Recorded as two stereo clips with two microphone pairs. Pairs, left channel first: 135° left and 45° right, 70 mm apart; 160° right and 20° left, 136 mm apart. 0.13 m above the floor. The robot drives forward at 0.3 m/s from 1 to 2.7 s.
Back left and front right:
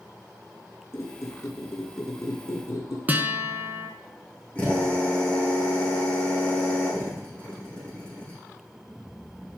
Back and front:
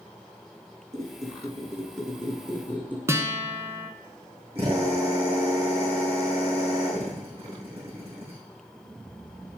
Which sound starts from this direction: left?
A squeak, at 0.9 s.